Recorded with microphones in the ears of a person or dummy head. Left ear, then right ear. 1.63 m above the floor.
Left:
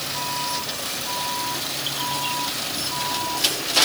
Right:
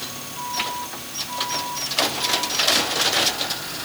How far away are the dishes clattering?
I don't hear dishes clattering.